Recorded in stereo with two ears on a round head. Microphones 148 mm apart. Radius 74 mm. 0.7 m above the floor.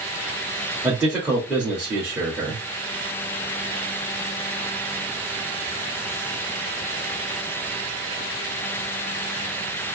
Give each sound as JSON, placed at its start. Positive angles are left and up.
{"t": 0.8, "sound": "a man speaking", "side_deg": -10, "distance_m": 1.5}